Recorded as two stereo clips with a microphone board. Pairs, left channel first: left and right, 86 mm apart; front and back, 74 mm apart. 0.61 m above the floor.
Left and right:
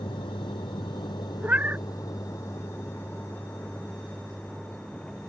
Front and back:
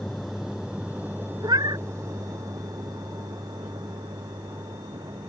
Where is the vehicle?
90° left; by 5.3 s 175° left.